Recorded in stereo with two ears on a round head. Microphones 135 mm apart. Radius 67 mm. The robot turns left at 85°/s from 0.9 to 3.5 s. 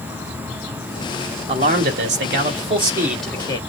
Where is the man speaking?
35° right, 2.5 m; by 3.6 s 155° left, 2.5 m.